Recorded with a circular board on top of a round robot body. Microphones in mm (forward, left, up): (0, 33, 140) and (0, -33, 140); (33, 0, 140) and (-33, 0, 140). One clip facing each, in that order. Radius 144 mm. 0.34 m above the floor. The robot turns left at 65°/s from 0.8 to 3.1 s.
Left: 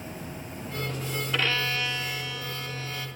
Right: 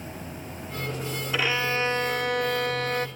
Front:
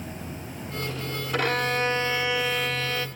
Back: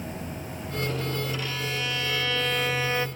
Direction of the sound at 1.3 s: 5° right.